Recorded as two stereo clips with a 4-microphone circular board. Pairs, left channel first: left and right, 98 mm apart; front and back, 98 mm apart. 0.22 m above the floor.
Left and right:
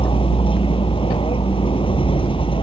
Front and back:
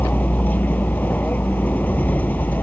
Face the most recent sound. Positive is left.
turn(degrees=70)